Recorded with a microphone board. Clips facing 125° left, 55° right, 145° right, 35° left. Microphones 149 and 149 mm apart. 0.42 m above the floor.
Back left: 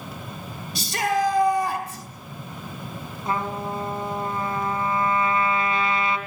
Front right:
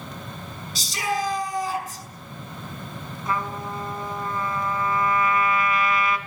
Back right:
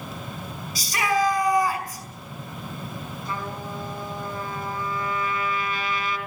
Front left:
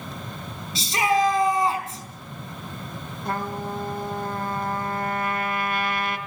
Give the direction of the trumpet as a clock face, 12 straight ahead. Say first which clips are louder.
Back left 2 dB, front left 5 dB; 10 o'clock.